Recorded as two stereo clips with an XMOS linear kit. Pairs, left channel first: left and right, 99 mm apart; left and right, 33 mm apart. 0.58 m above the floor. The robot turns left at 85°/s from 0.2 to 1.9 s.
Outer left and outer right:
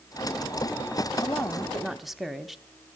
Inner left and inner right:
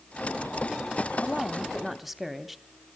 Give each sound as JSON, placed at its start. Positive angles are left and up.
{"t": 1.2, "sound": "a woman speaking", "azimuth_deg": 55, "distance_m": 1.0}